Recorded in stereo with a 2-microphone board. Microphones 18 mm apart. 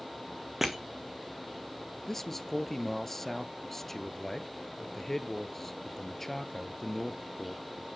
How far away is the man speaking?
About 1.5 m.